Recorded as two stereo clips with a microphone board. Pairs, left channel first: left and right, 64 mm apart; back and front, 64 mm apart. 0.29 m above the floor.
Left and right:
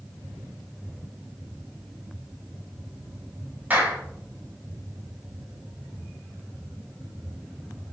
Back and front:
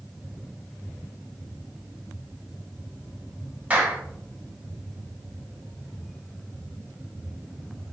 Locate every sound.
3.7 s a clap: 50° right, 1.1 m